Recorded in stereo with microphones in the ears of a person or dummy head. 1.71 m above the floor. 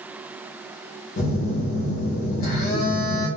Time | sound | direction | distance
1.2 | a phone buzzing | 40° left (ahead or behind) | 1.0 m